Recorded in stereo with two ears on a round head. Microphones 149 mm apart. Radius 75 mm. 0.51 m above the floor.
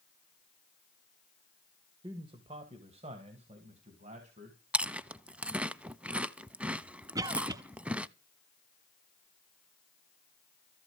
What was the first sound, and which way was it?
A man speaking, 30° right (ahead or behind).